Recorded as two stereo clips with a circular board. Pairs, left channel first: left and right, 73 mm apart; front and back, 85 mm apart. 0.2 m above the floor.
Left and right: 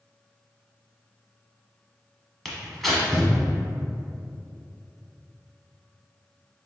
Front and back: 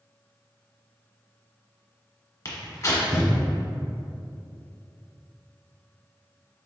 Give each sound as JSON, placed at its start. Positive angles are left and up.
{"t": 2.5, "sound": "tearing paper", "azimuth_deg": 5, "distance_m": 1.2}